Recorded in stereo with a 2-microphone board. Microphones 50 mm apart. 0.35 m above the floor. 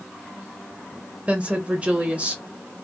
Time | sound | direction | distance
1.3 | a woman speaking | 25° right (ahead or behind) | 1.4 m